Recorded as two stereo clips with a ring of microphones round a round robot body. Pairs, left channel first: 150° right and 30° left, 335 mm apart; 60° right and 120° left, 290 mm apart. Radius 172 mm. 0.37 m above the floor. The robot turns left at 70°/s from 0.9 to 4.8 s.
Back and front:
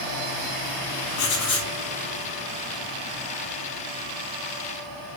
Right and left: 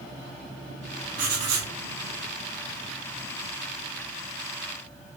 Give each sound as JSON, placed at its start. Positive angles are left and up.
{"t": 1.2, "sound": "writing", "azimuth_deg": -175, "distance_m": 0.9}